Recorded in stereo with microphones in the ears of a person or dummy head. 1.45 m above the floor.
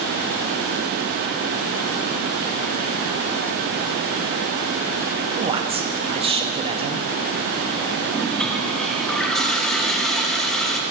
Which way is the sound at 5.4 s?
25° right (ahead or behind).